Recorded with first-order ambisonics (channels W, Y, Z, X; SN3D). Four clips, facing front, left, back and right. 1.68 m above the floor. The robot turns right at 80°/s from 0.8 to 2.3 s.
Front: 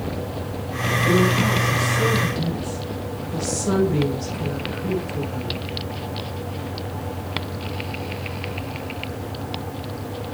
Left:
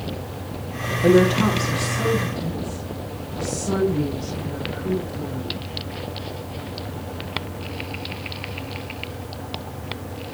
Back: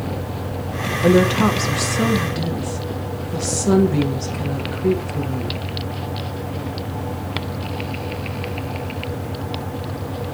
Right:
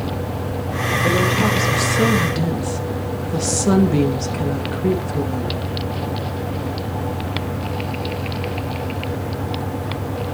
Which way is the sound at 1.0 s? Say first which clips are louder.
Left 3 dB, back 5 dB; 155° left.